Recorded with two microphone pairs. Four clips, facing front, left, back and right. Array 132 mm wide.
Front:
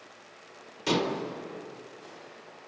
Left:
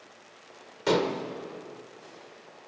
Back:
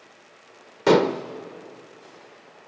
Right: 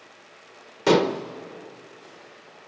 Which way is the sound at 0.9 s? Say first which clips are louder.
Right 6 dB, back 10 dB; 155° right.